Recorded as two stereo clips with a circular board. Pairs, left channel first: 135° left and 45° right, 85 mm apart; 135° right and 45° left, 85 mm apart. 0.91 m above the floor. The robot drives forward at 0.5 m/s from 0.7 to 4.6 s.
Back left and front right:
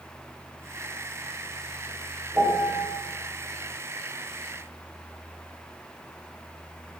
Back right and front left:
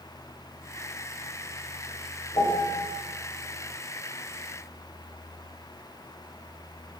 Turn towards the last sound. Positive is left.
turn(degrees=-125)